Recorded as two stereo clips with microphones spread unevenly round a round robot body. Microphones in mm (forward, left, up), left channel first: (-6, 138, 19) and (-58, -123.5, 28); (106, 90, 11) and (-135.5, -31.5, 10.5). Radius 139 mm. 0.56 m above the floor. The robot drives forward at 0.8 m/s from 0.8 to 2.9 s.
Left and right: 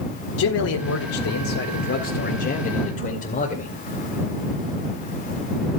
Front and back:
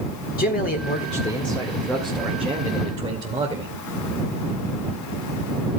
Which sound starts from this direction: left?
A man speaking, at 0.4 s.